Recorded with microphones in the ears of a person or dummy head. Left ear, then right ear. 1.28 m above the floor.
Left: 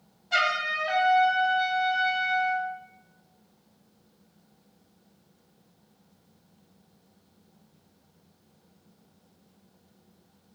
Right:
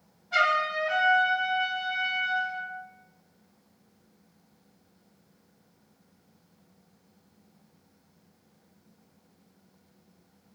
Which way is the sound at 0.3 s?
65° left (ahead or behind).